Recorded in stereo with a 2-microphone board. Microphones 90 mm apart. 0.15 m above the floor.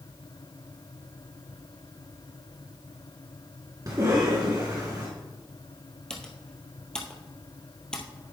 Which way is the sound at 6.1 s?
10° left (ahead or behind).